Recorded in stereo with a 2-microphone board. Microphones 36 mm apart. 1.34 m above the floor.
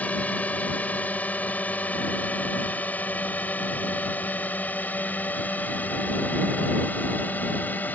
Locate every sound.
0.0 s a drone: 40° left (ahead or behind); by 8.0 s 50° left (ahead or behind)